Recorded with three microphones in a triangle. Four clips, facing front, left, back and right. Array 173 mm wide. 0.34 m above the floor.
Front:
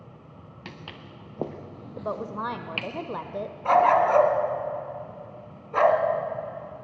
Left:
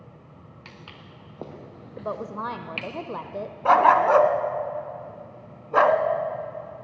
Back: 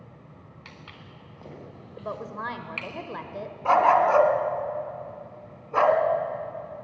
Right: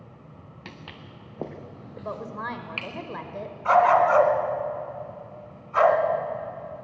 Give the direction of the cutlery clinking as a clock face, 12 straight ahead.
I don't hear cutlery clinking.